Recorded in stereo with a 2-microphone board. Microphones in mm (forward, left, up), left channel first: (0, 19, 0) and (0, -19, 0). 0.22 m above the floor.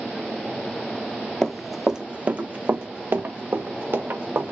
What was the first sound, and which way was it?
Running footsteps, 15° left (ahead or behind).